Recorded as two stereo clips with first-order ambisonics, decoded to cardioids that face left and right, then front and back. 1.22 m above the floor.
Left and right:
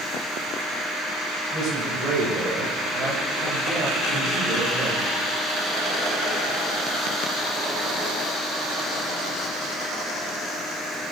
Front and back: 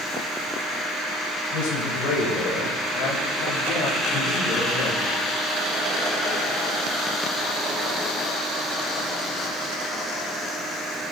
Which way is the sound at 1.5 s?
15° right.